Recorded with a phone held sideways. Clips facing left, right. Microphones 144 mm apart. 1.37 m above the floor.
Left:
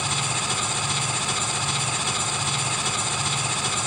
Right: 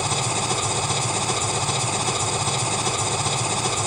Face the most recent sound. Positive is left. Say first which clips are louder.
# right 4 dB
turn(degrees=-40)  # may be behind; listen again after turning